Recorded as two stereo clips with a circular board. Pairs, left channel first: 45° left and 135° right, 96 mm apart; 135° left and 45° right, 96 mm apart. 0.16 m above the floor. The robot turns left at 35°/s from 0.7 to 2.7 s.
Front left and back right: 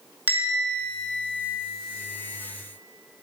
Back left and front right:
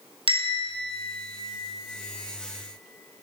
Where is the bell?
65° right, 0.9 m; by 1.4 s 90° right, 0.9 m.